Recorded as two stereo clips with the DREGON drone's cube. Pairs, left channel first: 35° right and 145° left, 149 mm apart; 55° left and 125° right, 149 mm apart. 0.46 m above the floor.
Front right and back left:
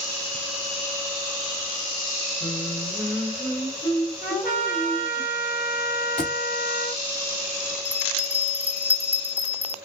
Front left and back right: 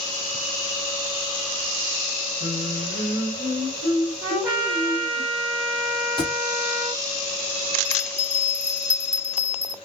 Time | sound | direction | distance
2.4 | singing | 45° left | 1.7 m
4.2 | a trumpet | 70° right | 3 m
6.2 | a thud | 70° right | 3 m
7.8 | a bell | 35° left | 1.9 m